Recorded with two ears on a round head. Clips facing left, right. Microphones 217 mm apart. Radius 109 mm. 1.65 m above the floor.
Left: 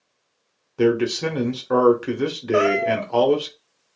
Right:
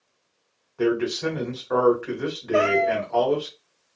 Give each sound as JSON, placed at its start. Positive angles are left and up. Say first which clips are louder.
{"t": 0.8, "sound": "a man speaking", "louder": "left 4 dB", "side_deg": 50, "distance_m": 0.8}
{"t": 2.5, "sound": "a cat meowing", "louder": "left 1 dB", "side_deg": 10, "distance_m": 1.0}